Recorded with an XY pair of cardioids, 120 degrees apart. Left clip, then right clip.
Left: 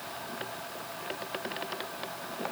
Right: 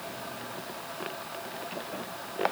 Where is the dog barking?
No dog barking in this recording.